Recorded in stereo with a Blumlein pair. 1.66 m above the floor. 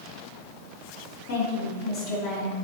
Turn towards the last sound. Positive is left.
turn(degrees=35)